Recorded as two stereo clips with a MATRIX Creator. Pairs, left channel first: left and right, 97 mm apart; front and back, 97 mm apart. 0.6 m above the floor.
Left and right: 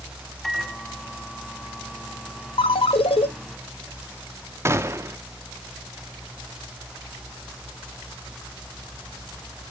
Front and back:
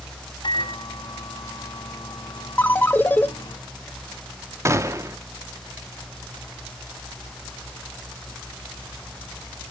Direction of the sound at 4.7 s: 135° right.